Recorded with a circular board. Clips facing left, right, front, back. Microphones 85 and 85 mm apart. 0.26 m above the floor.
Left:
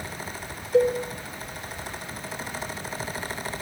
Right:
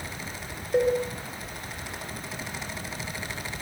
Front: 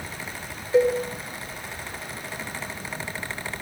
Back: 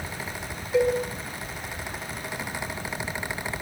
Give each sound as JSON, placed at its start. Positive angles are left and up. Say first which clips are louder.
{"t": 0.7, "sound": "a cowbell", "louder": "left 2 dB, front 3 dB", "azimuth_deg": -60, "distance_m": 5.0}